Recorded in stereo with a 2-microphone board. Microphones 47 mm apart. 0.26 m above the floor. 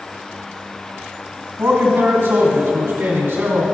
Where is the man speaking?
50° right (ahead or behind), 2.0 m.